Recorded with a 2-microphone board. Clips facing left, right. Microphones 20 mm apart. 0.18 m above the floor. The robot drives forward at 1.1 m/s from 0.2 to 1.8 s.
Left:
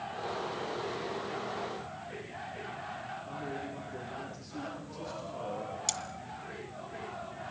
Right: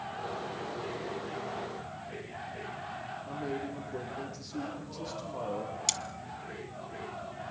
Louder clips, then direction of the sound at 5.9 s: Right 4 dB; 20° right (ahead or behind).